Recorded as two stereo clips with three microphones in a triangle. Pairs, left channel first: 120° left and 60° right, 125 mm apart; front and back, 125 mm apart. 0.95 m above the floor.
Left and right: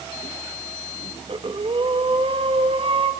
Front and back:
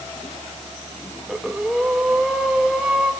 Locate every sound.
1.3 s breathing: 95° right, 1.5 m